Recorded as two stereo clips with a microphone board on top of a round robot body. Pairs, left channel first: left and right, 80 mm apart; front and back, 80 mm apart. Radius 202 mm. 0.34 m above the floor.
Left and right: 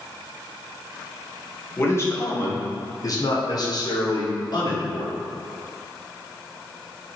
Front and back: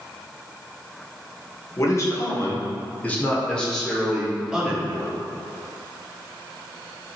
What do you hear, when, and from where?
1.8 s a man speaking: 40° left, 2.5 m; by 5.3 s 105° left, 2.5 m